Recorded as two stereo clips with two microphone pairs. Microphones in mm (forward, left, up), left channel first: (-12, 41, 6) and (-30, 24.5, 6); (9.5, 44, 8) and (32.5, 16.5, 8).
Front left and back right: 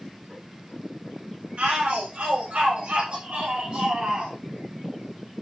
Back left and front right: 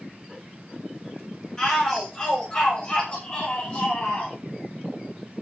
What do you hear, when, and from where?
1.6 s a shout: 160° right, 5.5 m; by 4.3 s straight behind, 6 m